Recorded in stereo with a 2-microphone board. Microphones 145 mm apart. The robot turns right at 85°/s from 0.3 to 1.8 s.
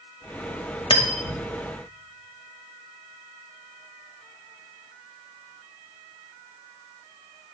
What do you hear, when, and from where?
0.9 s cutlery clinking: 40° left (ahead or behind), 1.2 m; by 1.4 s 60° left (ahead or behind), 1.2 m